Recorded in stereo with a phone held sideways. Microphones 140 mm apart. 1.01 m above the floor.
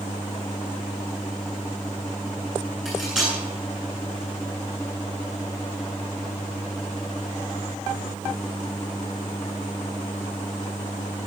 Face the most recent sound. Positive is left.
turn(degrees=-5)  # may be behind; listen again after turning